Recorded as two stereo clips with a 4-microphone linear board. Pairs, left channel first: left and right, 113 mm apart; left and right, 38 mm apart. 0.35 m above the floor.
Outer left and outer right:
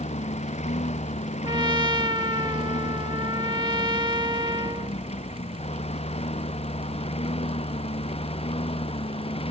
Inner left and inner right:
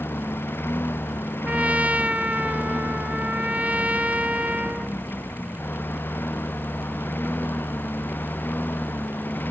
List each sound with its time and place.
0.0 s a lawn mower: 85° left; by 9.5 s 60° left (ahead or behind)
1.4 s a trumpet: 40° right (ahead or behind)